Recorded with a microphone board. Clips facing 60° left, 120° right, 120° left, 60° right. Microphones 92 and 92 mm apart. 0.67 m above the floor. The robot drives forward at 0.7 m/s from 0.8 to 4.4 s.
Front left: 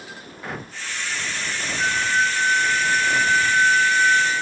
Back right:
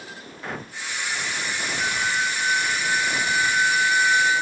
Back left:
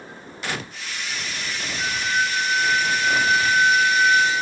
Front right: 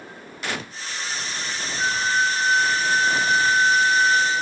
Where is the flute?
25° left, 5 m; by 4.4 s 35° left, 3.5 m.